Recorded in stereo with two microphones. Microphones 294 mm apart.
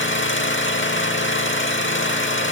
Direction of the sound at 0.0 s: 40° left (ahead or behind).